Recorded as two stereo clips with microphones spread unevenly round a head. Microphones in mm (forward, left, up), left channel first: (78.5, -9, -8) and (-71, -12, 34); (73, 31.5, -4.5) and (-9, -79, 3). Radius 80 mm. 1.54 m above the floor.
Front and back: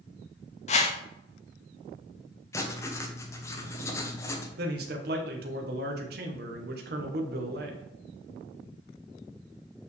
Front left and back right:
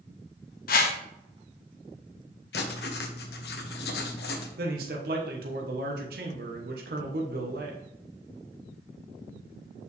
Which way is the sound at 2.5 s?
70° left.